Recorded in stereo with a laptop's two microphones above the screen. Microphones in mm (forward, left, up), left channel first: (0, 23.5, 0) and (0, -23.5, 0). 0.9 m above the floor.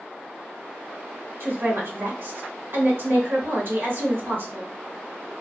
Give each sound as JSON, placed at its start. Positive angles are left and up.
{"t": 1.4, "sound": "a woman speaking", "side_deg": -50, "distance_m": 1.1}